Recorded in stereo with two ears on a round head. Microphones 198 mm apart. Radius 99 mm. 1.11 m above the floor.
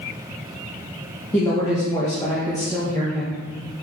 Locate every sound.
1.3 s a woman speaking: 15° left (ahead or behind), 1.3 m